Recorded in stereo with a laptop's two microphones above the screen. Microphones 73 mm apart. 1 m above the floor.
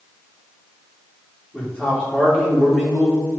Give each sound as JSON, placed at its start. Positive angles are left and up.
{"t": 1.5, "sound": "a man speaking", "side_deg": 15, "distance_m": 2.0}